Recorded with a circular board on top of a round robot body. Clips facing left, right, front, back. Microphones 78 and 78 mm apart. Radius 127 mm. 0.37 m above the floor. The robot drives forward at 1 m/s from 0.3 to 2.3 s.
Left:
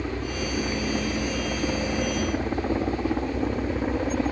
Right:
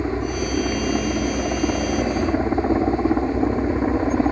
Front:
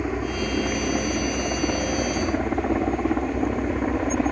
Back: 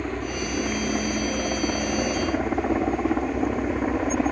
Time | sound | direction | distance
0.0 | a helicopter | 75° right | ?